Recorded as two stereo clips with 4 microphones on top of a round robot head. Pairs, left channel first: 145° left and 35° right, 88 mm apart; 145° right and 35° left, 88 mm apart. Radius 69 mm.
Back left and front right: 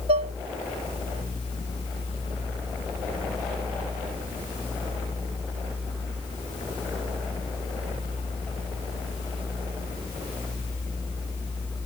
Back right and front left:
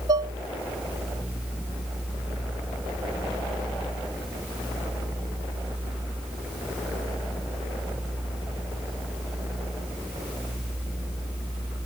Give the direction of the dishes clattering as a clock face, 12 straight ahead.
1 o'clock.